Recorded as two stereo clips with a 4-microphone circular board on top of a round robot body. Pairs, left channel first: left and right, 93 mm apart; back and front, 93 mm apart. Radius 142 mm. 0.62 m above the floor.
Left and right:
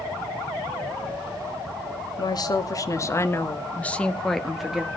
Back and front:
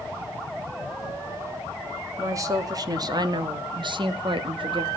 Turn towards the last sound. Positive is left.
turn(degrees=-10)